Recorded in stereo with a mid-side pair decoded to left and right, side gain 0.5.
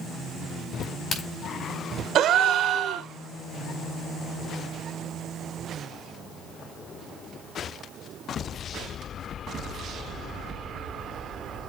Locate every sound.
0.8 s a crack: 55° left, 5.5 m
2.1 s a gasp: 60° right, 0.8 m